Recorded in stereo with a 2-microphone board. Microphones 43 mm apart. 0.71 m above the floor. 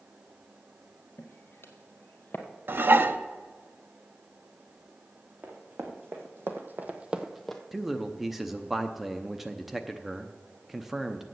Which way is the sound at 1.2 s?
60° left (ahead or behind).